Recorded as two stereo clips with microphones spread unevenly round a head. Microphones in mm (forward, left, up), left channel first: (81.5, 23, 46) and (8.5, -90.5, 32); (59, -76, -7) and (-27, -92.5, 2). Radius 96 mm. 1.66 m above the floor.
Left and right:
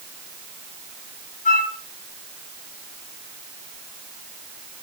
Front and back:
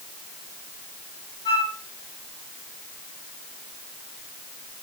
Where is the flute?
65° left, 2.5 m.